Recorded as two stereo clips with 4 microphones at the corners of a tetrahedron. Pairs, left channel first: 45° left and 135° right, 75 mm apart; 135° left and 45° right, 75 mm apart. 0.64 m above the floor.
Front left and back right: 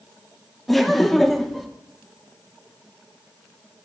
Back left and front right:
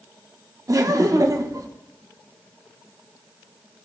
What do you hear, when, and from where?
0.7 s laughter: 40° right, 0.9 m